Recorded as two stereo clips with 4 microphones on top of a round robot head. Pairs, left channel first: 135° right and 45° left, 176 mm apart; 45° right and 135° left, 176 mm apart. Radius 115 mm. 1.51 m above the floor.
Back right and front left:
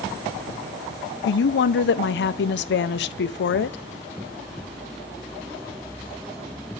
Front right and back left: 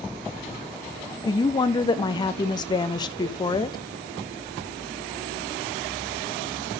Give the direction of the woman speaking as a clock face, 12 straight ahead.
4 o'clock.